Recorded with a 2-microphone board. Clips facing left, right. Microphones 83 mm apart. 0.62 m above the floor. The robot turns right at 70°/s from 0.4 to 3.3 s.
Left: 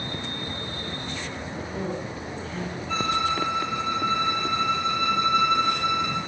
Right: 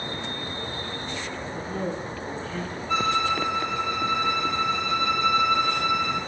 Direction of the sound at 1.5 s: 55° right.